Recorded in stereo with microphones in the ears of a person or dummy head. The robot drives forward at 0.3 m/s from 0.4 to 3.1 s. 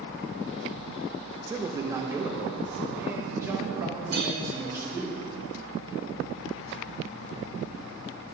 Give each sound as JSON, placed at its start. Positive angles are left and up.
{"t": 1.5, "sound": "a man speaking", "side_deg": -20, "distance_m": 0.5}
{"t": 4.1, "sound": "a clink", "side_deg": -50, "distance_m": 1.4}